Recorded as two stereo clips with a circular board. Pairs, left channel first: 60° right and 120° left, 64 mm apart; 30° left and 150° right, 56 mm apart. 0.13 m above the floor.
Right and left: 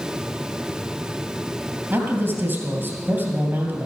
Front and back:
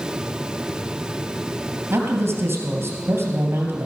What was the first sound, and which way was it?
A man speaking, 170° left.